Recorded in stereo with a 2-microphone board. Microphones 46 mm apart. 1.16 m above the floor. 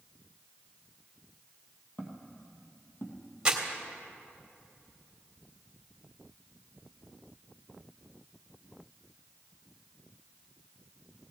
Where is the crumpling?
20° right (ahead or behind), 1.8 m.